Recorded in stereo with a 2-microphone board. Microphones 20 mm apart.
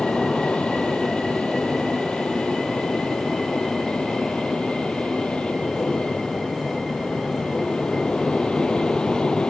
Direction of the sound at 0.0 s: 65° left (ahead or behind).